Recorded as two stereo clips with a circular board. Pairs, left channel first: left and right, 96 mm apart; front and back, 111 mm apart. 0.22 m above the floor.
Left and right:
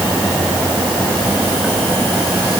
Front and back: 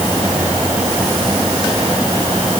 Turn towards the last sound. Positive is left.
No sound to turn to.